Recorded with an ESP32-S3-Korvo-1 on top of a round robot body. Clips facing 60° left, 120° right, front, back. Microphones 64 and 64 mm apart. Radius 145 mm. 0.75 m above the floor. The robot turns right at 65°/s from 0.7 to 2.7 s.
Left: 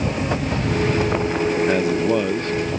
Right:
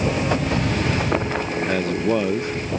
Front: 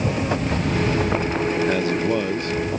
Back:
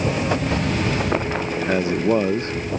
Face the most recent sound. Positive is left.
turn(degrees=-170)